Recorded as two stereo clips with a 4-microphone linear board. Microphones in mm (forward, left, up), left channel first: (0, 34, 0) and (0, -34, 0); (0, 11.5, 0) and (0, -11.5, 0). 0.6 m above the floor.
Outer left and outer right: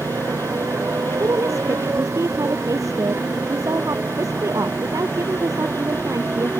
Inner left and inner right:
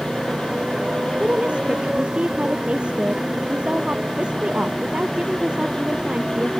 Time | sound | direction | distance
0.0 | a motorcycle | 40° right (ahead or behind) | ?
1.2 | a woman speaking | 50° right (ahead or behind) | ?